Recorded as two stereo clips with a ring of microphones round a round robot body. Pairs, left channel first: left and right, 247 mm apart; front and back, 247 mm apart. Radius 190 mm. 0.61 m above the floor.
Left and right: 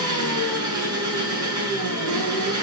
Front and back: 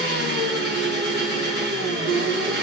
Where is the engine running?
120° right, 6 m.